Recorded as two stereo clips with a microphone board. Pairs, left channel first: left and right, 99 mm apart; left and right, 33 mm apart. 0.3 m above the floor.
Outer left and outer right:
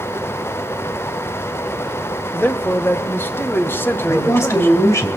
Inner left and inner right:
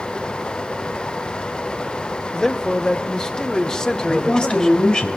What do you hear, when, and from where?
2.3 s a man speaking: 20° left (ahead or behind), 1.0 m
4.1 s a man speaking: 30° left (ahead or behind), 3 m